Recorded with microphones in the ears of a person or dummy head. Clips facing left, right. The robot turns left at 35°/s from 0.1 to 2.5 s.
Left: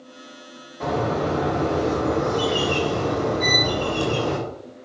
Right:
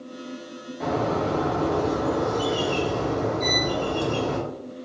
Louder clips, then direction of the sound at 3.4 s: Left 2 dB; 15° left (ahead or behind).